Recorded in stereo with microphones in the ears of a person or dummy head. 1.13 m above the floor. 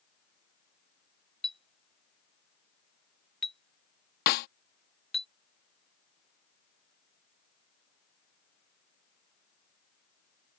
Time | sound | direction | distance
1.4 | a clink | centre (ahead or behind) | ?
4.3 | a snare drum | 55° left (ahead or behind) | ?